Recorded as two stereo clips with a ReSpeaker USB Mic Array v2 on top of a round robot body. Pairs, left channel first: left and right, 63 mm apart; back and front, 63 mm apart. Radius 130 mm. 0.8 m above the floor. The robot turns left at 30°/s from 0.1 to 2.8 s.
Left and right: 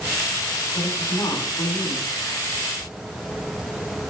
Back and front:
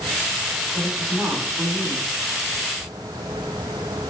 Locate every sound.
0.7 s a man speaking: 120° left, 7 m; by 2.1 s 80° left, 7 m